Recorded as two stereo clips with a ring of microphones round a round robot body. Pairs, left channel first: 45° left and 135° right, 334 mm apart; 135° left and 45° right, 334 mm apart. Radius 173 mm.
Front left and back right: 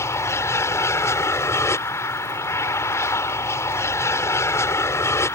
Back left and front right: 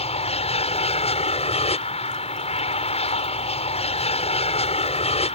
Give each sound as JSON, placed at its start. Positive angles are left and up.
{"t": 0.0, "sound": "an aircraft", "azimuth_deg": 110}